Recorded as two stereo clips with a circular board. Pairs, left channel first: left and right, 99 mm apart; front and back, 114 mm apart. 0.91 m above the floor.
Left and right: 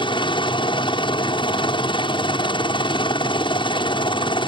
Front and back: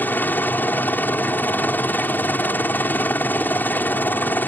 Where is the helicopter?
70° left.